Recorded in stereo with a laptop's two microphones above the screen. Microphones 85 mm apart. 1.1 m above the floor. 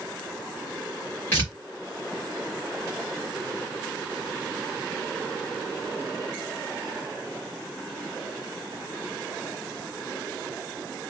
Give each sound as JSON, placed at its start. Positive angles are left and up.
{"t": 1.3, "sound": "tearing paper", "side_deg": 25, "distance_m": 1.8}